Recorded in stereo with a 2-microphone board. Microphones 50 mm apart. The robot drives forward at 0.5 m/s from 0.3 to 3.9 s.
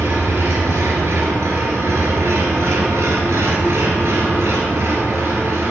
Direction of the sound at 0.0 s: 60° right (ahead or behind).